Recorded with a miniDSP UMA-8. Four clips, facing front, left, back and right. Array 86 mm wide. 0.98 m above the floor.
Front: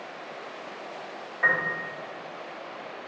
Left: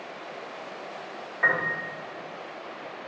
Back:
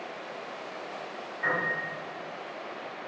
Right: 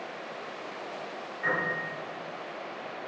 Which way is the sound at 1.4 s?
60° left.